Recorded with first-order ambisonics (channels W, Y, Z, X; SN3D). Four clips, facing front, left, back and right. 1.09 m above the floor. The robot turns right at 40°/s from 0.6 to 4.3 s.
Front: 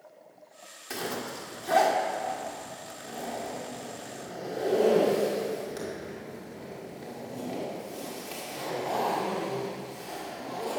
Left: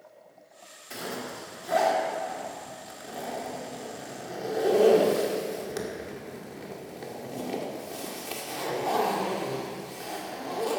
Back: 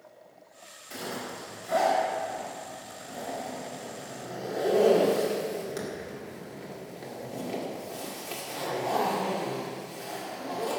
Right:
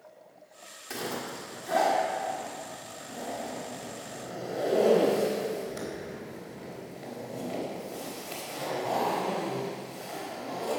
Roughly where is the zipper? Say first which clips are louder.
Right 1 dB, front 2 dB; ahead right.